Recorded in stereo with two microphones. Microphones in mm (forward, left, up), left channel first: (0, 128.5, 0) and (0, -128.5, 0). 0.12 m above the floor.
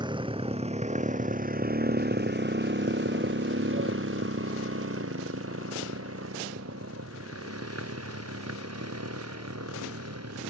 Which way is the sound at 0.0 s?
15° right (ahead or behind).